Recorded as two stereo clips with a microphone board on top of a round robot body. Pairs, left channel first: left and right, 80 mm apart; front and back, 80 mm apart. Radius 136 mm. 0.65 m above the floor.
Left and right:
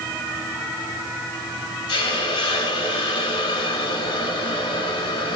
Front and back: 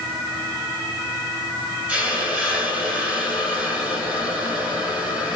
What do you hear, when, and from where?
1.9 s a hiss: 105° left, 0.7 m